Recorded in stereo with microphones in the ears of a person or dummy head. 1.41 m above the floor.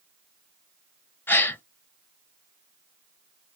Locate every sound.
1.3 s a gasp: 15° left (ahead or behind), 0.8 m